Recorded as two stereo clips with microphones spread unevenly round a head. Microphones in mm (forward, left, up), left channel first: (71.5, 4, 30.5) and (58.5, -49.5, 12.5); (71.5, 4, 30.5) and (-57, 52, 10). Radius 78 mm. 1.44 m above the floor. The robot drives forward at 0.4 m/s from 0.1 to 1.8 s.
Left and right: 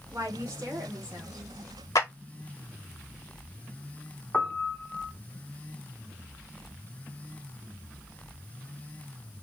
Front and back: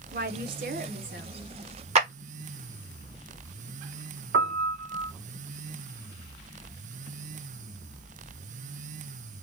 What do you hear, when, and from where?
0.1 s a woman speaking: 170° right, 0.7 m; by 1.3 s 175° right, 1.1 m
1.9 s a clap: 120° left, 1.0 m
4.3 s a piano: 155° left, 0.7 m